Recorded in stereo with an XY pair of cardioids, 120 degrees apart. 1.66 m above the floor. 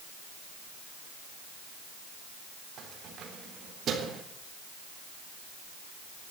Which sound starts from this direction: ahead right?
Keys jangling, at 2.8 s.